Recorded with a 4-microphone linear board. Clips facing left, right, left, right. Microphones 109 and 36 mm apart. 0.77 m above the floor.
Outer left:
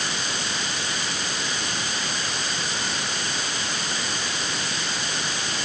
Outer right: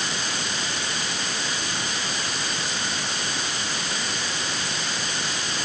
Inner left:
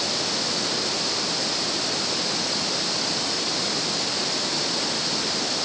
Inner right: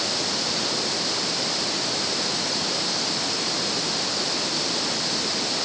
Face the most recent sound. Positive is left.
No sound to turn to.